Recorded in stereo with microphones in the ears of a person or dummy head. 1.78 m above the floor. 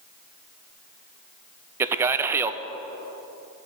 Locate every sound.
1.8 s a man speaking: 15° right (ahead or behind), 0.6 m